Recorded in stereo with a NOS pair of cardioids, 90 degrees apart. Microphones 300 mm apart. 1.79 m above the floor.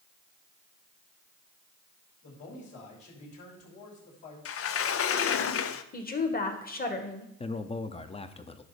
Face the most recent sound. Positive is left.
turn(degrees=20)